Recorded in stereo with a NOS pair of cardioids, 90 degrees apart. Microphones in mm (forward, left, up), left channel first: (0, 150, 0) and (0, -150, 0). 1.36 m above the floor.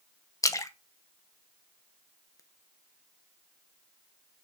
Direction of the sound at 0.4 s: 10° left.